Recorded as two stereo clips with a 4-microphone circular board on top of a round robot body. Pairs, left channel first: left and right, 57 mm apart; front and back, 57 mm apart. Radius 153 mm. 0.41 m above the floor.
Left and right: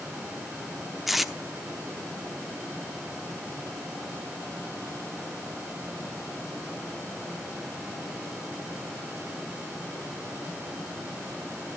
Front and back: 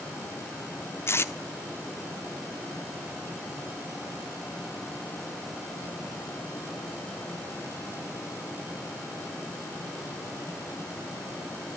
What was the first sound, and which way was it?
Tape being pulled, straight ahead.